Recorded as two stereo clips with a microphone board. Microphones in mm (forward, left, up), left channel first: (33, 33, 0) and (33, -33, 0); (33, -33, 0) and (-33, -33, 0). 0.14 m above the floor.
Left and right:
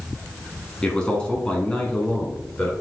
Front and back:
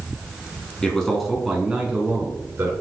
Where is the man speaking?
45° left, 1.1 m; by 2.7 s 160° left, 1.3 m.